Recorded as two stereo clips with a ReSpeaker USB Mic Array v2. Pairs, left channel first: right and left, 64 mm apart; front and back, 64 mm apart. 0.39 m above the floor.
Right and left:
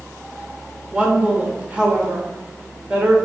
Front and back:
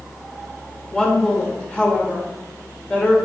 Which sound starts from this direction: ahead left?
A woman speaking, at 0.9 s.